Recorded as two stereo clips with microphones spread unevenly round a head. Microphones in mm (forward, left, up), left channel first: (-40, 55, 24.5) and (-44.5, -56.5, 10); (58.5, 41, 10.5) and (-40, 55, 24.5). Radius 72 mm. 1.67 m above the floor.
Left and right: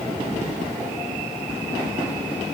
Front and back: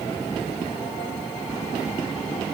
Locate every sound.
Only background noise.